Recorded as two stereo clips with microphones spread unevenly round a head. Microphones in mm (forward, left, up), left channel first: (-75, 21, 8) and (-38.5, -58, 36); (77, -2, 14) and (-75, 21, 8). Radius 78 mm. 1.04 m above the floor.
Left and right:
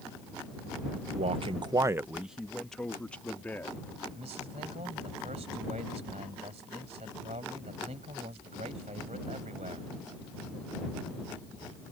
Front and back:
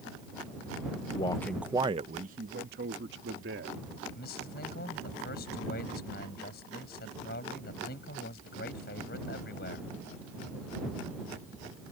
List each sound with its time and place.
1.1 s a man speaking: 65° right; by 3.8 s 175° right
4.1 s a man speaking: 40° right